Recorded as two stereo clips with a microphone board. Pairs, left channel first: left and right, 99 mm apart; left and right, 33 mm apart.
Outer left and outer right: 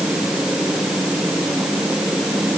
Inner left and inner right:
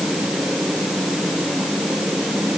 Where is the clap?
I don't hear a clap.